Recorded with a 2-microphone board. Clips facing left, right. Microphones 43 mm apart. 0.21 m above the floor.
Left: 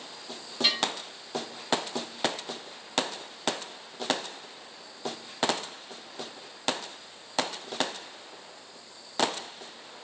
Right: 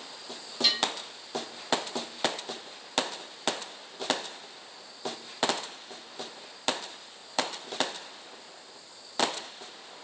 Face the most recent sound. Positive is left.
turn(degrees=20)  # may be behind; listen again after turning